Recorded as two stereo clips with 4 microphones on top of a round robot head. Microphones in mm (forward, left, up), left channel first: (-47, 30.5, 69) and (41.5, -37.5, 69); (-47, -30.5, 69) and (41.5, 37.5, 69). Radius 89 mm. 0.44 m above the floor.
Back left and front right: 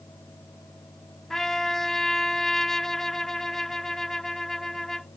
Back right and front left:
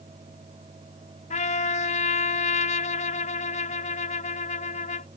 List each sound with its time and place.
1.3 s a trumpet: 130° right